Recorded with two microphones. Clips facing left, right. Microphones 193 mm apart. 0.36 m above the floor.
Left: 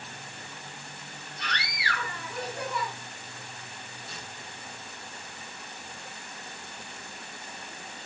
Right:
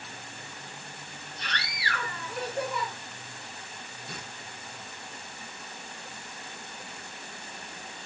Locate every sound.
1.4 s a scream: 30° right (ahead or behind), 5 m
4.1 s tearing paper: 60° right (ahead or behind), 1.0 m